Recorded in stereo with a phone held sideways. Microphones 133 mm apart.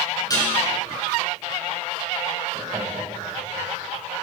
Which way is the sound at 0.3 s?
30° left (ahead or behind).